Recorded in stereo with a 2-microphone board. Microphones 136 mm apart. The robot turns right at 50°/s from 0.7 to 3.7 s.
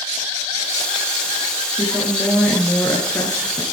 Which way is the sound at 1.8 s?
30° right.